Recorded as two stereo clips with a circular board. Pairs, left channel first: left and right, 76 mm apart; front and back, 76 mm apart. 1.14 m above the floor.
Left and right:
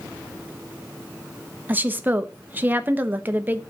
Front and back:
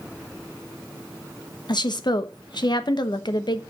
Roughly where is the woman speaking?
Ahead right.